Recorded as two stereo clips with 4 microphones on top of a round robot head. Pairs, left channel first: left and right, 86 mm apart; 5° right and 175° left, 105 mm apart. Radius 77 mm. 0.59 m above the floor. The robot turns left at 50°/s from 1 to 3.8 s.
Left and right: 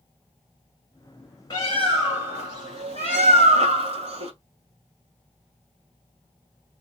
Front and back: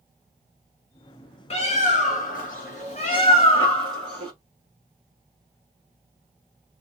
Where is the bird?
25° left, 1.4 m; by 4.3 s 90° right, 1.4 m.